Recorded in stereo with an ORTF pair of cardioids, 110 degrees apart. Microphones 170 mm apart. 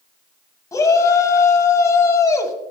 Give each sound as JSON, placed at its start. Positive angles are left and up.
{"t": 0.7, "sound": "a shout", "azimuth_deg": 20, "distance_m": 1.9}